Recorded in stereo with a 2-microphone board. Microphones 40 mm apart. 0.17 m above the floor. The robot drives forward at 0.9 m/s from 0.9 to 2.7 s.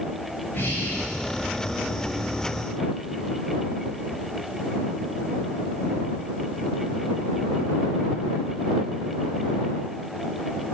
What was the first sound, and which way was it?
Breathing, 70° left (ahead or behind).